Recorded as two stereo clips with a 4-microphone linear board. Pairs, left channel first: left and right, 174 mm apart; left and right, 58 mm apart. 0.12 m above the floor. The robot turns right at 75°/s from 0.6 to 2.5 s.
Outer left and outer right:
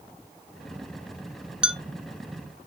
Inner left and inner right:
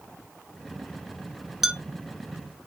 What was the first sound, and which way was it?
A clink, 5° right (ahead or behind).